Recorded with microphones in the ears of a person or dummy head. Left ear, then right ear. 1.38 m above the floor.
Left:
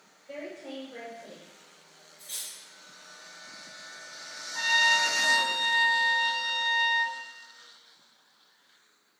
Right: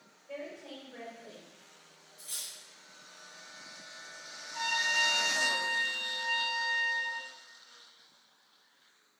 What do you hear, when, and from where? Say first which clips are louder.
0.3 s a woman speaking: left 3 dB; 50° left (ahead or behind), 1.4 m
2.2 s cutlery clinking: left 2 dB; 55° right (ahead or behind), 1.1 m
4.5 s a trumpet: left 6 dB; 40° left (ahead or behind), 1.5 m